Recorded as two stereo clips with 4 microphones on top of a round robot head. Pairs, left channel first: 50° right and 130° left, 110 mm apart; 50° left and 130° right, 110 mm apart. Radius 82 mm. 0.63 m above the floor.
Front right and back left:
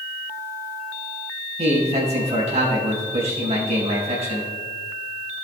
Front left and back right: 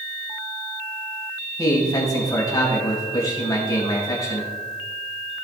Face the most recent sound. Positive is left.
turn(degrees=105)